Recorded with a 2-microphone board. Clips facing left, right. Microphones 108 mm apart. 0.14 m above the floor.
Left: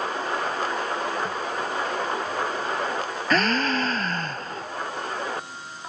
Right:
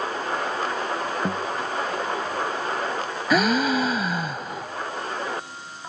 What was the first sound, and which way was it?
A guitar, 60° right (ahead or behind).